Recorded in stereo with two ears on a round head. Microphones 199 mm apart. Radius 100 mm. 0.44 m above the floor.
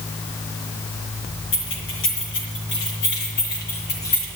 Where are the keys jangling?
65° left (ahead or behind), 7.5 m; by 4.3 s 50° left (ahead or behind), 7.5 m.